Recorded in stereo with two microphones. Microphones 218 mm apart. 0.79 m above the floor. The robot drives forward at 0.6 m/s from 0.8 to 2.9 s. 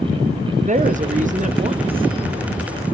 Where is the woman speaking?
35° right (ahead or behind), 0.5 m; by 2.1 s 20° right (ahead or behind), 0.8 m.